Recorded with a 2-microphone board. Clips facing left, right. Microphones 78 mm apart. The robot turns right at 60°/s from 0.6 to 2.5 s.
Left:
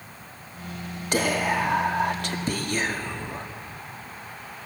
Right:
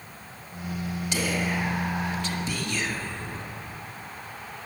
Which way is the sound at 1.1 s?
50° left.